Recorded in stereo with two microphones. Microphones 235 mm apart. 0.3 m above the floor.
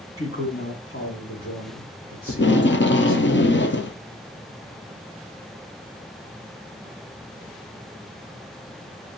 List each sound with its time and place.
0.2 s a man speaking: 65° left (ahead or behind), 2.5 m
2.3 s tape being pulled: 50° left (ahead or behind), 0.5 m